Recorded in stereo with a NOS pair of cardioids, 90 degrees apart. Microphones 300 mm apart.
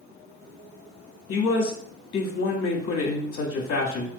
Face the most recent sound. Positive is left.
turn(degrees=45)